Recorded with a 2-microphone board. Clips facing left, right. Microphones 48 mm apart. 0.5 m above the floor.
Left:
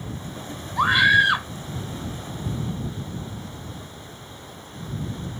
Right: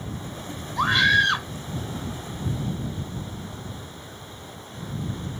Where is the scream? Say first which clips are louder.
Left 2 dB; 10° left (ahead or behind).